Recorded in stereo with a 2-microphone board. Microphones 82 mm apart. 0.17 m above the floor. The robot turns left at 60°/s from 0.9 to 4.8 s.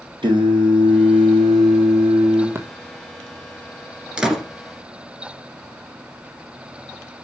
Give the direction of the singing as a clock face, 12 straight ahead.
3 o'clock.